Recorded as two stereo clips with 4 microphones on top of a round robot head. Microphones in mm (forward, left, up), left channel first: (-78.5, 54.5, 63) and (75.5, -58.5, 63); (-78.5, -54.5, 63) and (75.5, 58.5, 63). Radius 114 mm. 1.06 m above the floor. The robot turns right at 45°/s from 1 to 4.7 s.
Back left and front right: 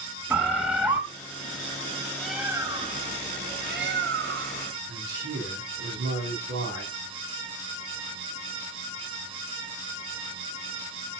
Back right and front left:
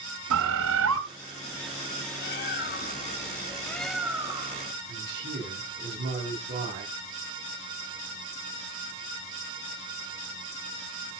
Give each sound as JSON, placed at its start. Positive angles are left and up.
{"t": 0.3, "sound": "a bird", "azimuth_deg": 45, "distance_m": 2.0}
{"t": 2.2, "sound": "a bird", "azimuth_deg": -130, "distance_m": 1.3}
{"t": 4.9, "sound": "a man speaking", "azimuth_deg": 5, "distance_m": 8.5}